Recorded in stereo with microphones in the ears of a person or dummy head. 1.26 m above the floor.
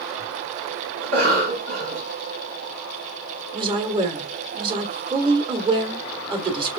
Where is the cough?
50° right (ahead or behind), 2.5 m.